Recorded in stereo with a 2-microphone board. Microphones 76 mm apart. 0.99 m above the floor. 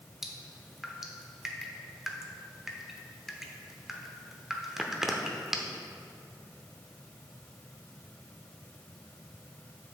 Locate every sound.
0.2 s dripping: 5° right (ahead or behind), 0.7 m